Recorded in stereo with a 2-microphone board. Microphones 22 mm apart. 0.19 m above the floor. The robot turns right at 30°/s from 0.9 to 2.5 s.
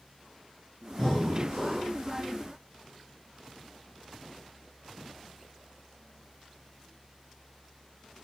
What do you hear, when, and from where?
1.0 s breathing: 40° left (ahead or behind), 5 m; by 1.9 s 65° left (ahead or behind), 5 m